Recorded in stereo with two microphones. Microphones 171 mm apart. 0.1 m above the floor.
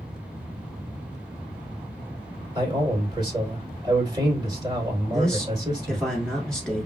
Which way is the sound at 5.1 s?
5° left (ahead or behind).